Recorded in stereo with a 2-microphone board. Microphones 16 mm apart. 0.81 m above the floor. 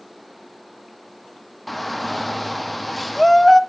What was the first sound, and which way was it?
A shout, centre (ahead or behind).